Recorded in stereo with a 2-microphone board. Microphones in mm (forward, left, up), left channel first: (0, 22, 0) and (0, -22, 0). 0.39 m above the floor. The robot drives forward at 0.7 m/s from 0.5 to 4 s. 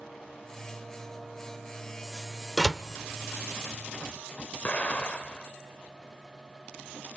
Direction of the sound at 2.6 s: 5° left (ahead or behind).